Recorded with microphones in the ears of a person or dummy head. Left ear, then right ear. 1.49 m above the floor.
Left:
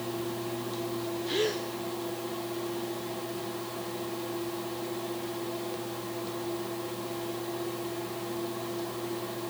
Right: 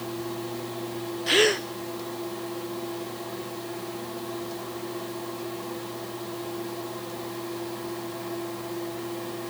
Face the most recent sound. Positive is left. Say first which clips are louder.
# right 10 dB
turn(degrees=-35)  # may be behind; listen again after turning